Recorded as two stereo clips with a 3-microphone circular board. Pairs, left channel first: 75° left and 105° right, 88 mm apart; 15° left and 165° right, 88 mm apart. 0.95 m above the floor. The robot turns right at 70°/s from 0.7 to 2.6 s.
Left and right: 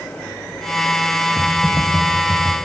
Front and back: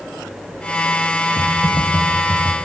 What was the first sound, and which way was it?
Typing on a keyboard, 15° right.